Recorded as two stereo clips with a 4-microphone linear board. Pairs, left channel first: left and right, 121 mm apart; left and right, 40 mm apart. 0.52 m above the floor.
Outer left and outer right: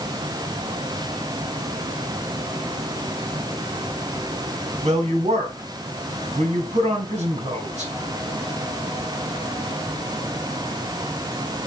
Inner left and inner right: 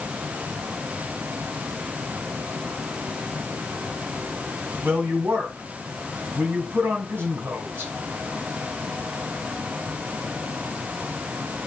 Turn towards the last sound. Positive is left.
turn(degrees=-70)  # may be behind; listen again after turning